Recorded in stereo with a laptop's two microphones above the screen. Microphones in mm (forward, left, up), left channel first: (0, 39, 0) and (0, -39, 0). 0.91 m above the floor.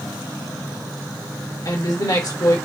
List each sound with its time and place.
1.6 s a woman speaking: 50° left (ahead or behind), 1.7 m